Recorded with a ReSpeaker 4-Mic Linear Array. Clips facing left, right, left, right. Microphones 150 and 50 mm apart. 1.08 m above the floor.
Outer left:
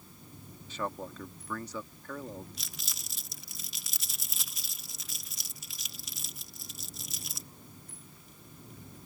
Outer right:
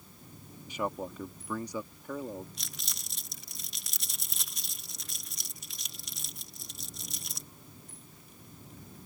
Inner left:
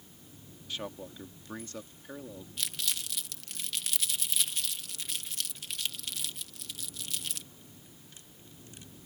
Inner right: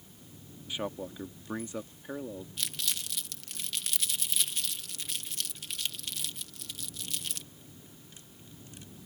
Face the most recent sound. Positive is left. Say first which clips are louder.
# even, inner left 3 dB
turn(degrees=0)  # may be behind; listen again after turning